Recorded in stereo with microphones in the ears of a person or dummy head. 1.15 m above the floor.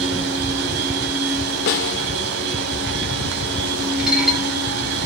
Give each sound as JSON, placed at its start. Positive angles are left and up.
{"t": 0.0, "sound": "a machine running", "side_deg": -75, "distance_m": 3.0}
{"t": 1.7, "sound": "a snare drum", "side_deg": 55, "distance_m": 1.1}
{"t": 4.0, "sound": "dishes clattering", "side_deg": -5, "distance_m": 3.0}